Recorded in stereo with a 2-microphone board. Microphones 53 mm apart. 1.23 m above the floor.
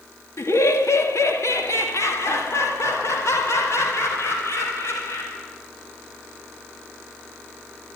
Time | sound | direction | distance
0.4 | laughter | 70° left (ahead or behind) | 2.5 m